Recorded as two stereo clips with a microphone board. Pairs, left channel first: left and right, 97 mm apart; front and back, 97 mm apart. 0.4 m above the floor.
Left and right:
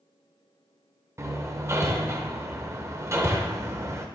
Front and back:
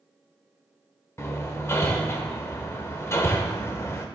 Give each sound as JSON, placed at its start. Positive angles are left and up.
{"t": 1.2, "sound": "hammering", "azimuth_deg": -45, "distance_m": 0.7}